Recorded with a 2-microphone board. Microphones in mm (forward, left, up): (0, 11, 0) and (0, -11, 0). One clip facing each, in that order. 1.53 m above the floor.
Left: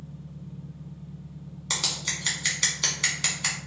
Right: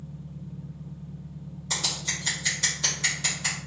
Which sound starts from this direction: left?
Scissors, at 1.7 s.